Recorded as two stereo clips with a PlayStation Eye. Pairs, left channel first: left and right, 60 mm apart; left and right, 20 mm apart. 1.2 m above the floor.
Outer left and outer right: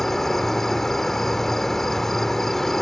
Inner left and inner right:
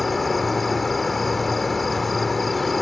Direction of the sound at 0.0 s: 5° left (ahead or behind).